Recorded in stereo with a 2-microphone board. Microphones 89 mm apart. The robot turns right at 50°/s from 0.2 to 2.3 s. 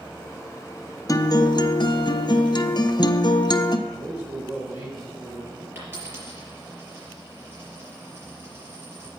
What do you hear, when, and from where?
1.1 s a guitar: 45° left, 0.5 m; by 3.8 s 105° left, 0.5 m
3.9 s a man speaking: 20° right (ahead or behind), 5 m
5.8 s a dropped coin: 25° right (ahead or behind), 4.5 m